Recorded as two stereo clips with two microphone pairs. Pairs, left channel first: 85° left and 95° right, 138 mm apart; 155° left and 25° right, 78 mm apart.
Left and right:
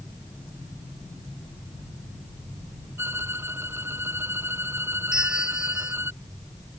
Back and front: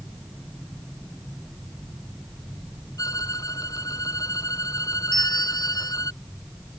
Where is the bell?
Straight behind.